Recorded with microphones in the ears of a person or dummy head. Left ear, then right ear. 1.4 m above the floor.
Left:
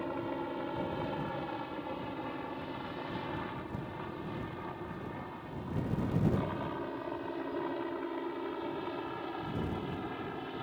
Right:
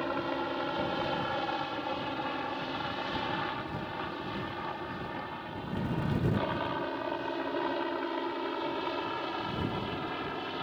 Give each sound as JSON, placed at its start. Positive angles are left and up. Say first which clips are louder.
{"t": 0.0, "sound": "a helicopter", "louder": "right 5 dB", "side_deg": -50}